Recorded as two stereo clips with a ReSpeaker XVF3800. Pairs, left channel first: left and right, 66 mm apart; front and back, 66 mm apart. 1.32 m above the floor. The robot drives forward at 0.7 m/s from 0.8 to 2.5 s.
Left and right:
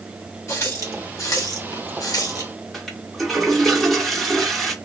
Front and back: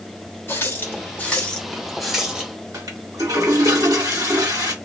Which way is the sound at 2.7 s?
Straight behind.